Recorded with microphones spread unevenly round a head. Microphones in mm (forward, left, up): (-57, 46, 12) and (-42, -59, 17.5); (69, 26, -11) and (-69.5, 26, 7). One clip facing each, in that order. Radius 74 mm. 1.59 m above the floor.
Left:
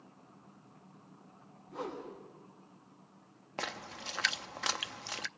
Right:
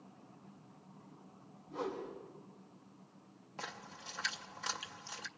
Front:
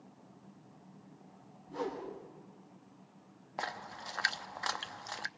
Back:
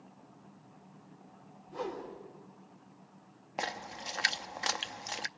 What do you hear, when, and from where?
1.7 s a whoosh: 10° left, 9.5 m
3.6 s a splash: 110° left, 0.6 m